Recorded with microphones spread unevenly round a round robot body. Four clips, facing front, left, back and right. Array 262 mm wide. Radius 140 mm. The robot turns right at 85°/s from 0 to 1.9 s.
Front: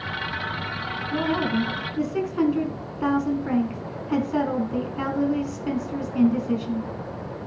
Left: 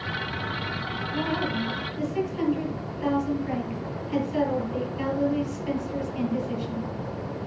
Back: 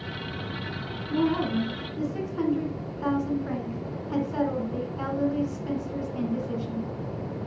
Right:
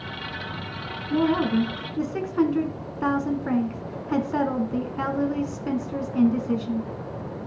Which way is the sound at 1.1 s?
110° right.